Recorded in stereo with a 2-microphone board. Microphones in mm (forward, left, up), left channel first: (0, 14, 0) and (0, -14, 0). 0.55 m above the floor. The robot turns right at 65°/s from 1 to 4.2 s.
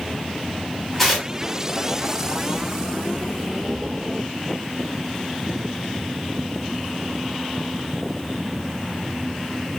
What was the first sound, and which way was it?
Tearing paper, centre (ahead or behind).